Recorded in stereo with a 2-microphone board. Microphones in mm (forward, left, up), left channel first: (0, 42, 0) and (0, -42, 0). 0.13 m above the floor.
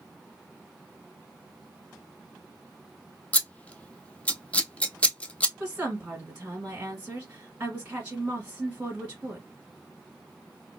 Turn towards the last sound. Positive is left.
turn(degrees=-20)  # may be behind; listen again after turning